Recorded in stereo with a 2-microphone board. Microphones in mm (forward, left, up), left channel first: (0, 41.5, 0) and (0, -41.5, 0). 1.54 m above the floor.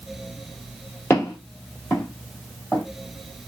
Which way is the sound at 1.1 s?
25° left (ahead or behind).